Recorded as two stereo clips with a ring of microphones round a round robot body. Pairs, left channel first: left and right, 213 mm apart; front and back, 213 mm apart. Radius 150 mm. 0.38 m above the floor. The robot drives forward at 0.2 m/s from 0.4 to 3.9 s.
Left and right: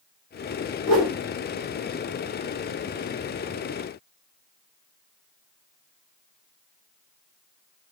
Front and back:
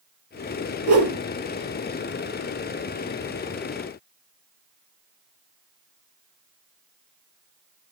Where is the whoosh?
165° right, 2 m.